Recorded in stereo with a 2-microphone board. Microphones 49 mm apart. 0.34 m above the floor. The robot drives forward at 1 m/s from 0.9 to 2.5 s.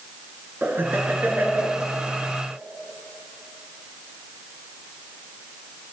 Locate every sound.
0.6 s laughter: 40° right (ahead or behind), 4.5 m; by 1.8 s 35° right (ahead or behind), 5 m